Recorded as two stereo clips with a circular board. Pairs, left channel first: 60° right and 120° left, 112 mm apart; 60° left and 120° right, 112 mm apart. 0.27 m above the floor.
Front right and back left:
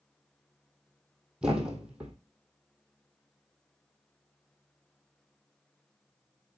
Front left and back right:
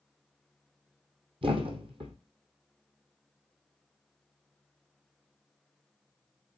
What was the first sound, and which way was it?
A thud, 160° right.